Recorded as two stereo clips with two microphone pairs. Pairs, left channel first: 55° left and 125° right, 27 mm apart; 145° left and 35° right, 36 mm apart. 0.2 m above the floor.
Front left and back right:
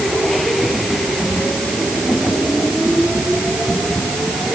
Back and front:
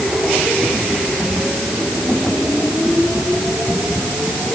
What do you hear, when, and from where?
Only background noise.